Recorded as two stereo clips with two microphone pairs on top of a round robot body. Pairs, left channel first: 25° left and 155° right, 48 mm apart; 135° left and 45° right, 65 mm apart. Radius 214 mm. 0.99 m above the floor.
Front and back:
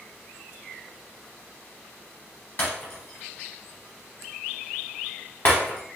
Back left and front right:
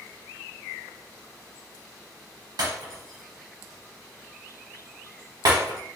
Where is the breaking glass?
25° right, 0.7 m.